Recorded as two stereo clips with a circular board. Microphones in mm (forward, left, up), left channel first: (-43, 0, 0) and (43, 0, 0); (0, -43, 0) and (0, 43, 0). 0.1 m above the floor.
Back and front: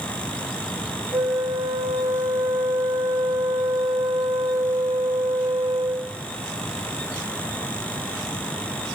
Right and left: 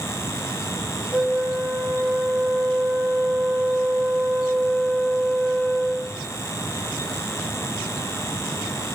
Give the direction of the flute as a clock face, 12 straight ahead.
12 o'clock.